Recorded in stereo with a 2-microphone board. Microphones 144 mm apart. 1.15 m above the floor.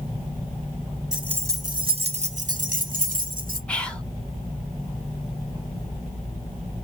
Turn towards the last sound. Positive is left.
turn(degrees=5)  # may be behind; listen again after turning